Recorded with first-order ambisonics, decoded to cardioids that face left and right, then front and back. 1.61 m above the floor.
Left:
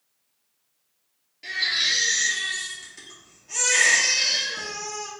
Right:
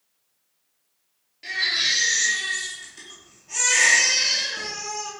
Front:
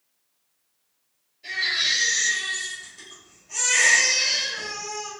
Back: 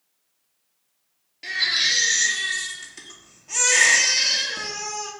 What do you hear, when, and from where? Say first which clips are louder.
1.4 s a baby crying: right 1 dB, back 2 dB; straight behind, 1.8 m